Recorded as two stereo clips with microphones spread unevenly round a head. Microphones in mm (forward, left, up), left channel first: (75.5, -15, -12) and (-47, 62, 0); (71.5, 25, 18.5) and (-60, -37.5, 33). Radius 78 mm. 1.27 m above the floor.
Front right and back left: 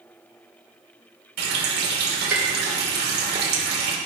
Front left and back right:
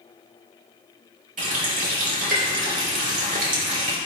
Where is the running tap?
165° left, 2.5 m.